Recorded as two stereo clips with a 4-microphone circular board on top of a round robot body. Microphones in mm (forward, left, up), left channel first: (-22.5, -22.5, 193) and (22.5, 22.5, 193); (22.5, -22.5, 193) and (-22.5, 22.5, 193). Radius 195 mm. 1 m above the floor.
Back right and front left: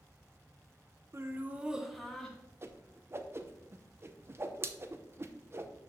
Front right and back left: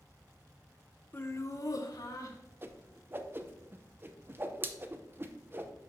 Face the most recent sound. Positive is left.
turn(degrees=85)